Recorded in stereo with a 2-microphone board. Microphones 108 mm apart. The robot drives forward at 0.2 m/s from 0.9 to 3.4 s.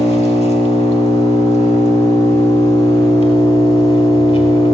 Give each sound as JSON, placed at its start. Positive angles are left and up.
{"t": 0.0, "sound": "an engine running", "side_deg": 80, "distance_m": 1.1}